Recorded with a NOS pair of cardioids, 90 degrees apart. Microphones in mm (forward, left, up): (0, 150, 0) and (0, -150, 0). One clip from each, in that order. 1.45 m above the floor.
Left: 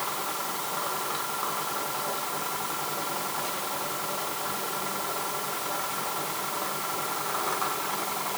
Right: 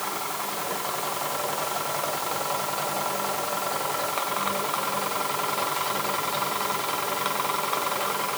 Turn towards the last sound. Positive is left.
No sound to turn to.